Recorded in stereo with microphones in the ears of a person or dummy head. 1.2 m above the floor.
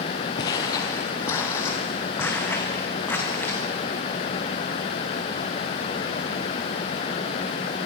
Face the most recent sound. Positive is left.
turn(degrees=15)  # may be behind; listen again after turning